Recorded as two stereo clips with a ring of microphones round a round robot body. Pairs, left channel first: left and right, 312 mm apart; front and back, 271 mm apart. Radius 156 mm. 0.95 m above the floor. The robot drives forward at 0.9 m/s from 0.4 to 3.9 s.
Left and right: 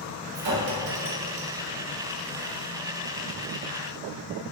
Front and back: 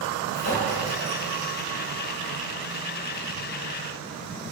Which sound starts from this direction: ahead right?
A clink, at 0.3 s.